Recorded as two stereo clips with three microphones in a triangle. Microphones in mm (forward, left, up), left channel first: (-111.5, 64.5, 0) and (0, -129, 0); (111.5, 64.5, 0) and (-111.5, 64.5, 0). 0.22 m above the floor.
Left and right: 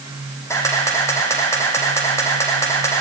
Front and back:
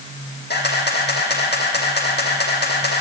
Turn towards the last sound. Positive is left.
turn(degrees=40)